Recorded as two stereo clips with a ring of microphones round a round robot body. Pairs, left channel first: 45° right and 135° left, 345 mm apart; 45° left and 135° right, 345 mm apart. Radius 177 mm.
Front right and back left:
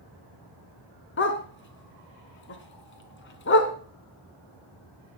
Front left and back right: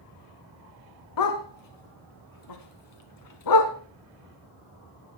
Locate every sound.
1.2 s a dog barking: 15° left, 1.7 m